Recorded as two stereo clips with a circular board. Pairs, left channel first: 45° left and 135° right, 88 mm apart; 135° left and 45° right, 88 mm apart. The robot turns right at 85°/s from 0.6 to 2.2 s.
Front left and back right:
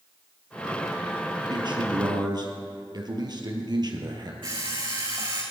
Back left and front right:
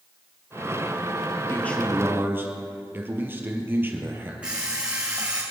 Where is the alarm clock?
120° right, 5.5 m.